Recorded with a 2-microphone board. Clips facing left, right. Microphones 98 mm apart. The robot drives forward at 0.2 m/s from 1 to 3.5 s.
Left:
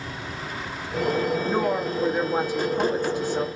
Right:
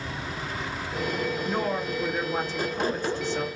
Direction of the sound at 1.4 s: 15° left (ahead or behind).